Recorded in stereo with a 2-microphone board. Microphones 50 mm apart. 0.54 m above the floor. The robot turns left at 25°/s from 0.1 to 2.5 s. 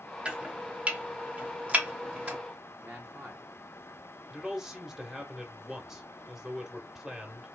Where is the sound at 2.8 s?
15° right (ahead or behind), 1.2 m.